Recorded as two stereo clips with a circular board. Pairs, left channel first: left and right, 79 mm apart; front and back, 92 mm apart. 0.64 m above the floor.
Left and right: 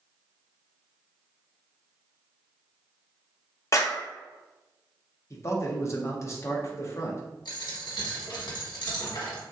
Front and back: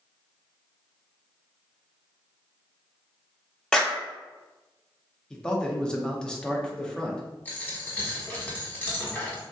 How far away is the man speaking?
About 0.6 m.